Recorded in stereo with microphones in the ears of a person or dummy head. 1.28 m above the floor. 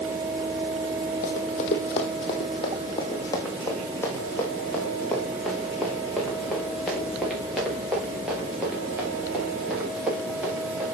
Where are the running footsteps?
45° left (ahead or behind), 2.5 m; by 10.8 s 10° right (ahead or behind), 8.5 m.